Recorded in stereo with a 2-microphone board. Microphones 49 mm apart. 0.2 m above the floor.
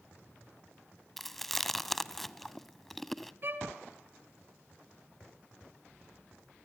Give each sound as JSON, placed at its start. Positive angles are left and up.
{"t": 1.2, "sound": "chewing", "side_deg": 5, "distance_m": 0.6}
{"t": 3.4, "sound": "a violin", "side_deg": -45, "distance_m": 2.0}